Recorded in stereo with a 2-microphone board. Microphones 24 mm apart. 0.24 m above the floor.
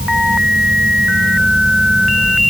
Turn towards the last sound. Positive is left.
No sound to turn to.